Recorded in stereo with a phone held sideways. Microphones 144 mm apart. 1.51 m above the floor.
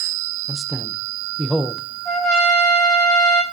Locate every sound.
0.5 s a man speaking: centre (ahead or behind), 0.8 m
2.0 s a trumpet: 5° left (ahead or behind), 6.5 m